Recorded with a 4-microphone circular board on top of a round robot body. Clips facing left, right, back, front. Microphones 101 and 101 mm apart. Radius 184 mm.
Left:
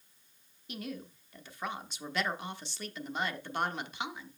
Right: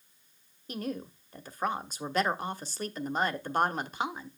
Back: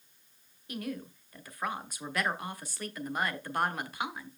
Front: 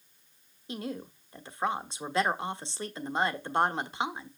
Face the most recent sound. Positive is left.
turn(degrees=-55)